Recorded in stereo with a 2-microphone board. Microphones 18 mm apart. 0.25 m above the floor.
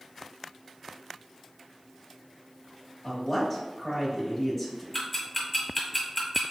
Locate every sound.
3.0 s a woman speaking: 5° right (ahead or behind), 1.2 m
4.9 s ticking: centre (ahead or behind), 1.6 m